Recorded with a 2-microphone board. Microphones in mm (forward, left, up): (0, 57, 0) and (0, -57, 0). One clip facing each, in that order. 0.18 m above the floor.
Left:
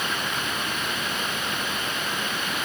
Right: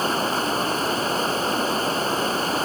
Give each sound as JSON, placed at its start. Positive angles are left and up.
{"t": 0.0, "sound": "running water", "side_deg": -35}